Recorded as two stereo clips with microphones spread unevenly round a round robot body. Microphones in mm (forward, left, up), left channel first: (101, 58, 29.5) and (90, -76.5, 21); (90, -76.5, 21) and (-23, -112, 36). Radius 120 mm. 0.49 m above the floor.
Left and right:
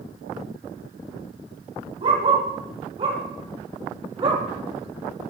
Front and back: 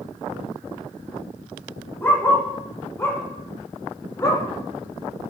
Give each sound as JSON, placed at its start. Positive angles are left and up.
{"t": 2.0, "sound": "a dog barking", "azimuth_deg": -55, "distance_m": 6.5}